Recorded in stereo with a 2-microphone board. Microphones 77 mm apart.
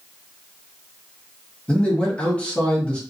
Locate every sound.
1.7 s a man speaking: 15° left (ahead or behind), 1.1 m